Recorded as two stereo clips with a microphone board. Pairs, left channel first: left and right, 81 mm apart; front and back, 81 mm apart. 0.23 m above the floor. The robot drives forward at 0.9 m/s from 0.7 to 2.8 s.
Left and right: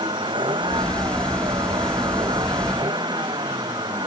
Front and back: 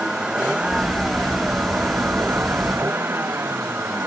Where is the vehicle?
100° right; by 4.1 s 115° right.